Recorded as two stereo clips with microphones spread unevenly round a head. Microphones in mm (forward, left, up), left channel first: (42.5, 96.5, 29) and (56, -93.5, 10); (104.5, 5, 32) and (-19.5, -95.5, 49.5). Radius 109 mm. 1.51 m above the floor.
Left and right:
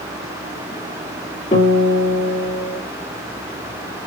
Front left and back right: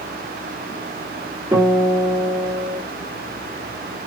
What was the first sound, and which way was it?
A guitar, 155° left.